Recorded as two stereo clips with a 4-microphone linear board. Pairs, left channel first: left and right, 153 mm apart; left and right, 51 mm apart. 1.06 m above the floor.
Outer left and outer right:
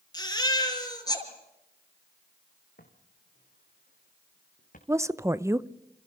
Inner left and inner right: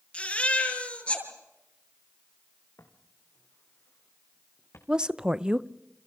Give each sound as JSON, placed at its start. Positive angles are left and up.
{"t": 0.1, "sound": "a baby crying", "side_deg": 25, "distance_m": 6.0}
{"t": 2.8, "sound": "footsteps", "side_deg": 75, "distance_m": 4.0}
{"t": 4.9, "sound": "a woman speaking", "side_deg": -20, "distance_m": 0.8}